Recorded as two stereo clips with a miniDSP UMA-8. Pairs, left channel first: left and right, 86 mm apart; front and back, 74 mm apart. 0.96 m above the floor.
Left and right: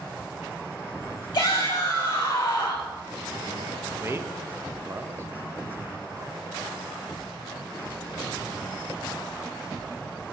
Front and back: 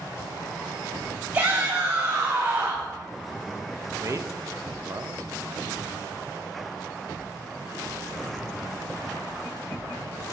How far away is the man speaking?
About 0.7 m.